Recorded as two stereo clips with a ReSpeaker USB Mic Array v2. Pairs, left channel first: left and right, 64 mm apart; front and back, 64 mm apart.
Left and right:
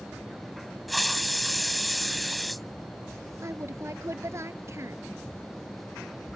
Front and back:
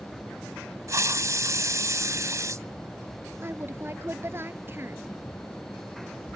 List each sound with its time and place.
0.9 s a hiss: straight behind
3.4 s a woman speaking: 130° right